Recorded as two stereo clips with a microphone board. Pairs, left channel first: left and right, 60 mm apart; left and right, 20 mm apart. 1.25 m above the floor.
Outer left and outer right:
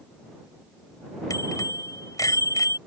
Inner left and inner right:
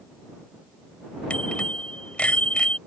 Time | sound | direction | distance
1.3 | a bicycle bell | 85° left | ?